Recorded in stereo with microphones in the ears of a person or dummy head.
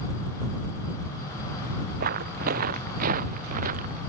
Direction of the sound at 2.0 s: 50° right (ahead or behind).